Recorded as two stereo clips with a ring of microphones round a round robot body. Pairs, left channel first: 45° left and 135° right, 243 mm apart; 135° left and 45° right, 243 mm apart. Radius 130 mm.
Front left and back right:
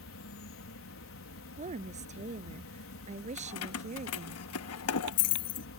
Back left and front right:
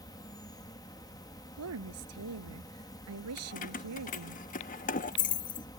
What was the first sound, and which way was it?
An insect, 60° left.